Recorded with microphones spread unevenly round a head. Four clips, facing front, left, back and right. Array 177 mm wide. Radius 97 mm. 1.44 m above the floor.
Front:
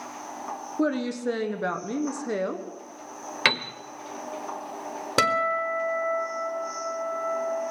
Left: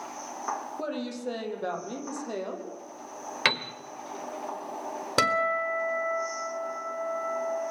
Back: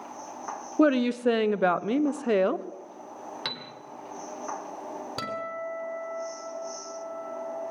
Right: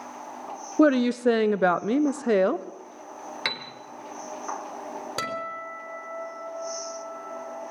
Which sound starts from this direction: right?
A woman speaking, at 0.8 s.